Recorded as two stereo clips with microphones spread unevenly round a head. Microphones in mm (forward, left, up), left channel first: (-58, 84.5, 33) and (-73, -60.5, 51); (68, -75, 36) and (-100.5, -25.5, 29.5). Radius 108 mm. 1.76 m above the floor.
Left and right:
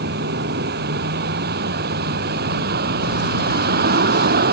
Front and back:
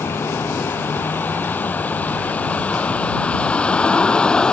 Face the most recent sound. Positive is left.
turn(degrees=-100)